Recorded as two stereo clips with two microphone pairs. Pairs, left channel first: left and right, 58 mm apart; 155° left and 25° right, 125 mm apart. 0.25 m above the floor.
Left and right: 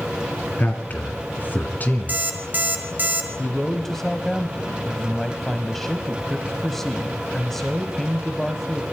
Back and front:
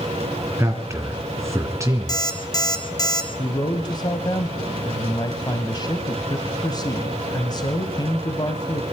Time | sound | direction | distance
0.6 | a man speaking | 40° left | 2.0 m
2.1 | an alarm clock | 145° right | 2.5 m
3.4 | a man speaking | 170° left | 1.2 m